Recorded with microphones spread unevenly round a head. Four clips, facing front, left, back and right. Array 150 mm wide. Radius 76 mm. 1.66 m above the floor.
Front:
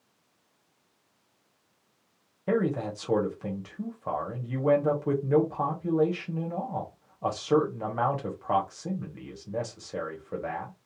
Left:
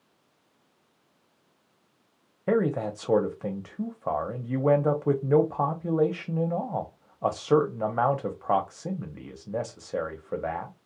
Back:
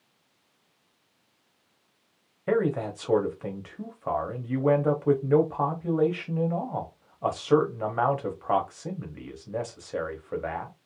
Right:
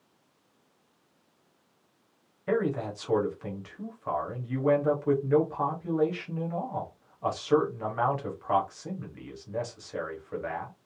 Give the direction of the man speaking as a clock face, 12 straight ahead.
9 o'clock.